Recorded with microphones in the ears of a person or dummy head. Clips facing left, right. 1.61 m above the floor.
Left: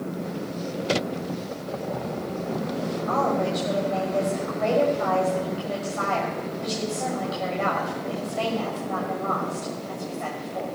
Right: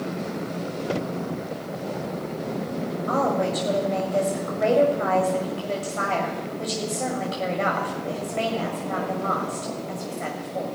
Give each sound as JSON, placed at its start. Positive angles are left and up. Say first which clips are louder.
{"t": 3.1, "sound": "a woman speaking", "louder": "right 1 dB", "side_deg": -35, "distance_m": 7.0}